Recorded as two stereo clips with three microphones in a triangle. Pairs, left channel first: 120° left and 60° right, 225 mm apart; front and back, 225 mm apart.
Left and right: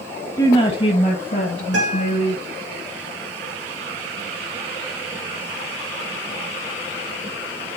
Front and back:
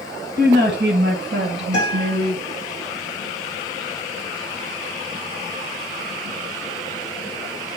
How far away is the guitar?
About 6 m.